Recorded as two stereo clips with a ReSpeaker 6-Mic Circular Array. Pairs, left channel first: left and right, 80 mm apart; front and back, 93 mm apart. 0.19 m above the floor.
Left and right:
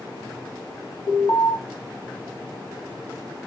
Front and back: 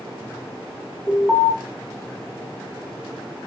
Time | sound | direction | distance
1.1 | an alarm | 85° left | 7 m